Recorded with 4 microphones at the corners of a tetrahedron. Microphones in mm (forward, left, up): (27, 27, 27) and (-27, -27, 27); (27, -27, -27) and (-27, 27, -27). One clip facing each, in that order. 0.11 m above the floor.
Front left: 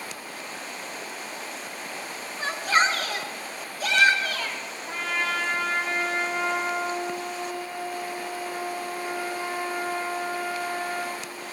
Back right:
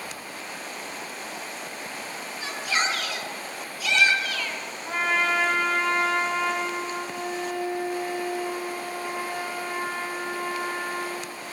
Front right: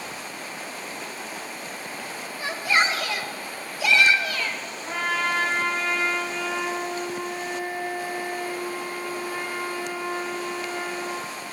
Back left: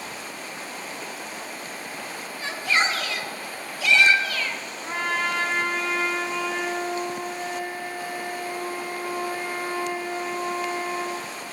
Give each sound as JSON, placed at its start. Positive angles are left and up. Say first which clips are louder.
{"t": 2.4, "sound": "a shout", "louder": "front left 5 dB, front right 1 dB", "azimuth_deg": 25, "distance_m": 1.9}
{"t": 4.8, "sound": "a trumpet", "louder": "back right 5 dB, even", "azimuth_deg": -155, "distance_m": 4.5}